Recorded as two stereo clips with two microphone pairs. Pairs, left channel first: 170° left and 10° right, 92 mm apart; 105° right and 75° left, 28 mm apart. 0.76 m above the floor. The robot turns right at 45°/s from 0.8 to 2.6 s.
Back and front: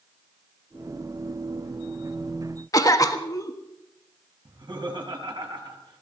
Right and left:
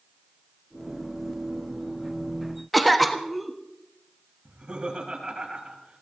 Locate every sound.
2.7 s a cough: 175° left, 1.4 m
4.5 s laughter: 20° left, 5 m